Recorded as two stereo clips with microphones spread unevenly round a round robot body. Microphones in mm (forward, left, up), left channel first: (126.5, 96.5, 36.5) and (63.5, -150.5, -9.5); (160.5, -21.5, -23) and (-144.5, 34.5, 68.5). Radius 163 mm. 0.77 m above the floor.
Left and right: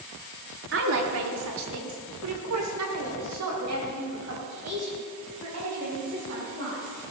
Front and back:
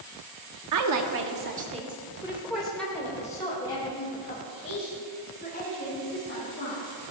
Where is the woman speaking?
150° right, 1.4 m; by 7.1 s 75° right, 6.5 m.